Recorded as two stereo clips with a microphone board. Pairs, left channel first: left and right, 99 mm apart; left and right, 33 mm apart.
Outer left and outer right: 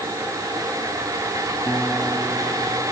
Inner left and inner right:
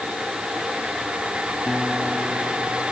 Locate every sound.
1.7 s a guitar: 5° left (ahead or behind)